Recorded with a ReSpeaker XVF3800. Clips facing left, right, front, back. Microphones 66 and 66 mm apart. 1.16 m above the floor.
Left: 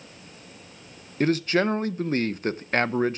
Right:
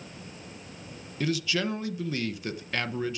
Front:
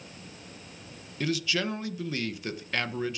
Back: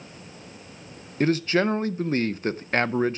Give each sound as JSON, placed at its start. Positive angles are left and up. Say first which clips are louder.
{"t": 1.2, "sound": "a man speaking", "louder": "left 7 dB, back 8 dB", "azimuth_deg": 135, "distance_m": 0.7}